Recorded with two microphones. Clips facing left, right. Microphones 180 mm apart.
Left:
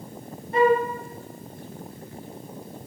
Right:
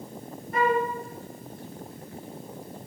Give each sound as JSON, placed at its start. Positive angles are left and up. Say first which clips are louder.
{"t": 0.5, "sound": "a flute", "louder": "left 5 dB", "side_deg": 30, "distance_m": 1.4}